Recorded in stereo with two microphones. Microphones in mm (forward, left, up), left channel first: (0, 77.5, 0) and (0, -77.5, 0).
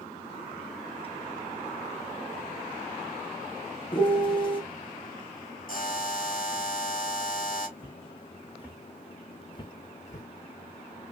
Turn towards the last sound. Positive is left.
turn(degrees=60)  # may be behind; listen again after turning